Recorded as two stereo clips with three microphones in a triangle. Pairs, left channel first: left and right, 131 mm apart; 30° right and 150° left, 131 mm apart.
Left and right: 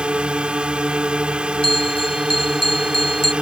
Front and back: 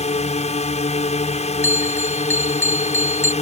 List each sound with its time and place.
0.0 s a drone: 10° right
1.6 s a bell: 40° left